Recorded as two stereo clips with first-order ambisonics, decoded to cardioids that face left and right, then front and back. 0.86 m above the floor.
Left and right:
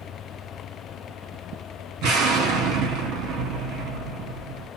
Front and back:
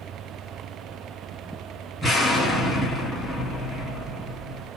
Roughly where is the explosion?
Right.